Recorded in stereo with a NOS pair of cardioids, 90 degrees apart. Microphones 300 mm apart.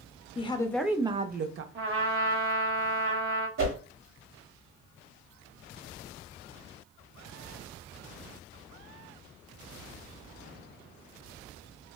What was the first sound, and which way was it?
A woman speaking, 20° left.